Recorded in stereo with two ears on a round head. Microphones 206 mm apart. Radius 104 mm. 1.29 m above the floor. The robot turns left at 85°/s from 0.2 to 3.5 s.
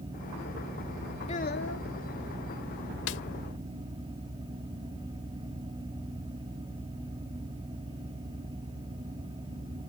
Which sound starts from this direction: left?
A snare drum, at 3.1 s.